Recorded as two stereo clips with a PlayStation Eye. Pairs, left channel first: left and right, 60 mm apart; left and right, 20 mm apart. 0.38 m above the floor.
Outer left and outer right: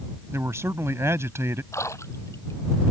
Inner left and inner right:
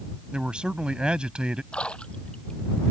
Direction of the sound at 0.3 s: 50° right (ahead or behind).